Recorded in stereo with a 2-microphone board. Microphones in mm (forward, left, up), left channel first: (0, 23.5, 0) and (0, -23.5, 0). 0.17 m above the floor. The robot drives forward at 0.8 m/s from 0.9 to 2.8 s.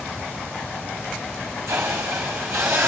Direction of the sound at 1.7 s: 70° right (ahead or behind).